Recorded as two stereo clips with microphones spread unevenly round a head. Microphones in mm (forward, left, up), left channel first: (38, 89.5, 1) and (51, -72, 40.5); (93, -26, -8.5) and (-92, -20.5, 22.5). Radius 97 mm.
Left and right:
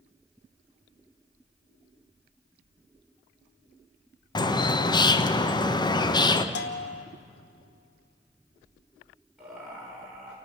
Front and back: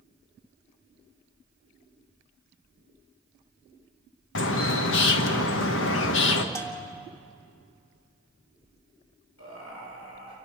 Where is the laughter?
Straight ahead, 5.5 m.